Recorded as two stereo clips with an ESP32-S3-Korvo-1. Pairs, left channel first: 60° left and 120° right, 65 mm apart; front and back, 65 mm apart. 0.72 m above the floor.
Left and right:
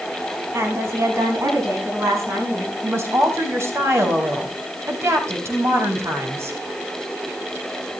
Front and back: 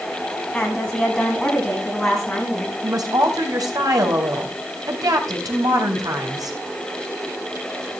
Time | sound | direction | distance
0.5 | a woman speaking | 75° right | 6 m
2.8 | a woman speaking | 165° right | 4 m